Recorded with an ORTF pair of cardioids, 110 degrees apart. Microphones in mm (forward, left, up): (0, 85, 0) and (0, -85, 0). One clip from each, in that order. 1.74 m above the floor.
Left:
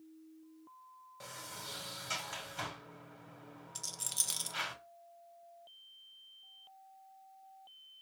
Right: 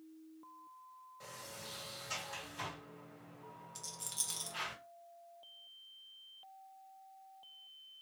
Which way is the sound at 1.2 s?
45° left.